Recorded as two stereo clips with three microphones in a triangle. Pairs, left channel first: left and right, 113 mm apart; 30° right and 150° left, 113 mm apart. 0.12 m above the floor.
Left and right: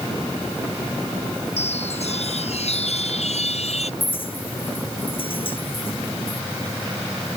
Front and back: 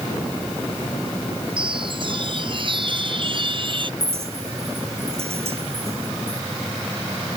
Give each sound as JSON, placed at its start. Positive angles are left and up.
{"t": 1.6, "sound": "a chime", "azimuth_deg": 110}
{"t": 4.0, "sound": "a clink", "azimuth_deg": 125}